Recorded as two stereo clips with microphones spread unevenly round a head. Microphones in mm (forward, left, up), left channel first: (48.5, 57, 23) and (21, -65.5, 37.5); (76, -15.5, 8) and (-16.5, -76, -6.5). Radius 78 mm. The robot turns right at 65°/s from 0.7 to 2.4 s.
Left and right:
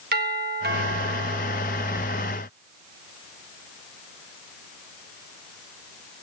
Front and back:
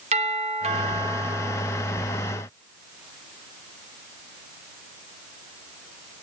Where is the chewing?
No chewing in this recording.